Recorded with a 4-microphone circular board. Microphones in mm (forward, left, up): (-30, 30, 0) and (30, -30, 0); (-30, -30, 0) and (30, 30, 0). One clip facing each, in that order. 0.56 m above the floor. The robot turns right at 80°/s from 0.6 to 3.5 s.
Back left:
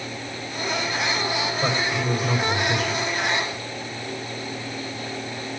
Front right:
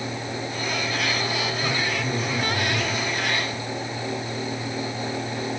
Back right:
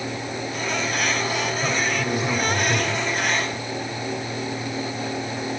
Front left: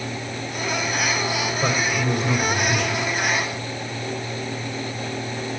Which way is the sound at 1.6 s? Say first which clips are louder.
Back left 2 dB, front left 1 dB; 90° left.